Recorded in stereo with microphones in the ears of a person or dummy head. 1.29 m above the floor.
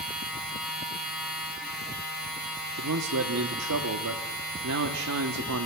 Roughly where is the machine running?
Centre.